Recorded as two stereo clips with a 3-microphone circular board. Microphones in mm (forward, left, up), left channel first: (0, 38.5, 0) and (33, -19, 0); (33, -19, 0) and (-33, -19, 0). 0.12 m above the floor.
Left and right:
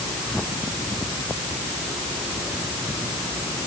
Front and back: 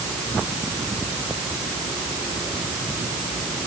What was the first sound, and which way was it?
Only background noise.